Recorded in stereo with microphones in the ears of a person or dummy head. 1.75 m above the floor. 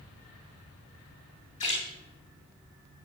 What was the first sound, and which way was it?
A splash, 35° left (ahead or behind).